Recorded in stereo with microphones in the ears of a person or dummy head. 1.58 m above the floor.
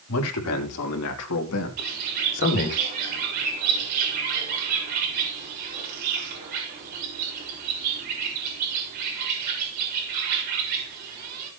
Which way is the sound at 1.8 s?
45° right (ahead or behind).